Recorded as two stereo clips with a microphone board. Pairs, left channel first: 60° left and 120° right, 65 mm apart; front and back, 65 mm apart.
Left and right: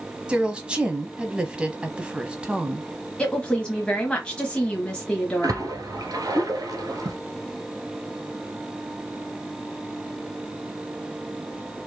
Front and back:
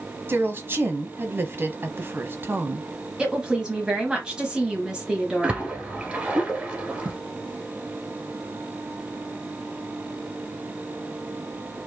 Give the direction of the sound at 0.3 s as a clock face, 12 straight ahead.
6 o'clock.